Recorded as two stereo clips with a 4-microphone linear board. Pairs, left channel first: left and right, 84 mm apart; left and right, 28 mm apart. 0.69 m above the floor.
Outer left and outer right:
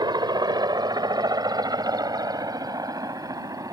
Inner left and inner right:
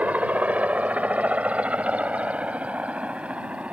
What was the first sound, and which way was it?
A helicopter, 55° right (ahead or behind).